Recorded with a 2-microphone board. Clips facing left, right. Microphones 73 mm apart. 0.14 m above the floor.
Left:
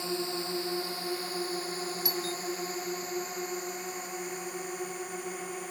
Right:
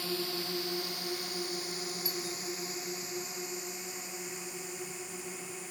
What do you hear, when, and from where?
0.0 s a drone: 25° left (ahead or behind); by 5.7 s 50° left (ahead or behind)
2.0 s a doorbell: 70° left (ahead or behind)